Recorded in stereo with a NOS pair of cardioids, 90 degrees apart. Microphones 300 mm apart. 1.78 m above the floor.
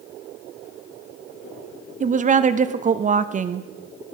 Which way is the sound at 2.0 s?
25° right.